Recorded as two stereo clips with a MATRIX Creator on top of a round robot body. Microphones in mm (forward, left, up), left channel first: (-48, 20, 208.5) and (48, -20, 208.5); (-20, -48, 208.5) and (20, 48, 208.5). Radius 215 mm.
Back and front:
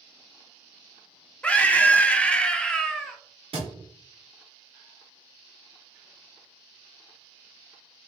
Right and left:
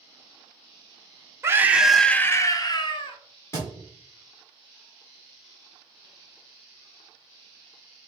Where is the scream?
95° left, 0.8 m; by 3.2 s 120° right, 1.0 m.